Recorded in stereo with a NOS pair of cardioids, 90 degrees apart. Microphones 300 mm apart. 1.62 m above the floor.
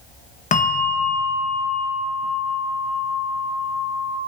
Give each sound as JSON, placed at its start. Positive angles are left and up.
{"t": 0.5, "sound": "a bell", "azimuth_deg": 25, "distance_m": 1.1}